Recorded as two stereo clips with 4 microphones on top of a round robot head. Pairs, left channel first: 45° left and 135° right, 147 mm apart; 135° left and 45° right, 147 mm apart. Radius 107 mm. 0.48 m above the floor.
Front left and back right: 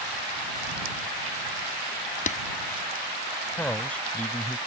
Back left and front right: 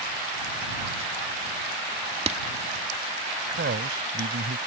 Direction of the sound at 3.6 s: 35° right.